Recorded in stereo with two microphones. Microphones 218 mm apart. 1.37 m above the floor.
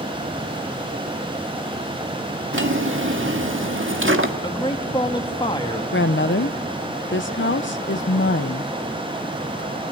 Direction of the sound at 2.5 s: 70° right (ahead or behind).